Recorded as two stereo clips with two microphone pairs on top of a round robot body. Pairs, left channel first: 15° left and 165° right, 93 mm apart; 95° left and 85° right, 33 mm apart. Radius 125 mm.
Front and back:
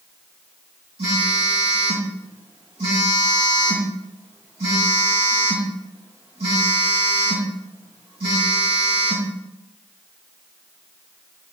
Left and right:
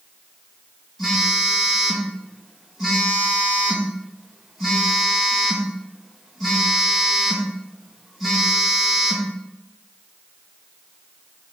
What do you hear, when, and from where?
1.0 s a phone buzzing: 175° right, 2.5 m